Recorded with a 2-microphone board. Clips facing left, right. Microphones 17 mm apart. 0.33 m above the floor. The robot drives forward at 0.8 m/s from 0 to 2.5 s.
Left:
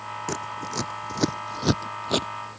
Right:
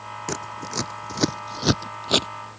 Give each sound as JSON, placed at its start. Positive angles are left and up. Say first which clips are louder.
{"t": 0.3, "sound": "scissors", "louder": "right 1 dB", "side_deg": -20}